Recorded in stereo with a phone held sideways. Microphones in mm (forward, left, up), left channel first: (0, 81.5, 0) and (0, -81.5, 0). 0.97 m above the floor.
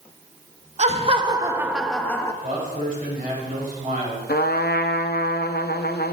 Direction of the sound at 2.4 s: 55° right (ahead or behind).